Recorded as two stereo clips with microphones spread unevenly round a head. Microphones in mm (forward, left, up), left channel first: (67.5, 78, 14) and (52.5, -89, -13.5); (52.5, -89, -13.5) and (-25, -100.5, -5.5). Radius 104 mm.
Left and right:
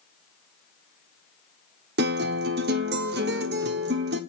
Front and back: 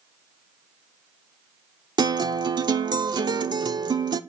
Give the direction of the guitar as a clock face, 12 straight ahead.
5 o'clock.